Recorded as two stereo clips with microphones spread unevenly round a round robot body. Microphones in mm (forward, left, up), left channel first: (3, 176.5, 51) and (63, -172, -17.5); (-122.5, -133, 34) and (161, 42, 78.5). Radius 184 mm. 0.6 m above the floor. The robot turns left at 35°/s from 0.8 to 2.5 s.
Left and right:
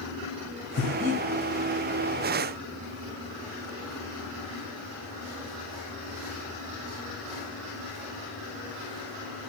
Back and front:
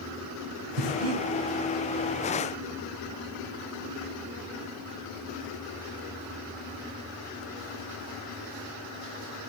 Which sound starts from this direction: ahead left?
Breathing, at 0.8 s.